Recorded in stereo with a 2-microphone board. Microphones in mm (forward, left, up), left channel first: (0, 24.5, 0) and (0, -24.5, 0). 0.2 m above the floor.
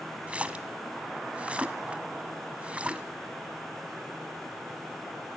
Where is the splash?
25° right (ahead or behind), 1.1 m.